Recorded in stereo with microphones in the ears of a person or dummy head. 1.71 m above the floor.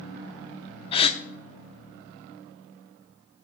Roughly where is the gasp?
Left.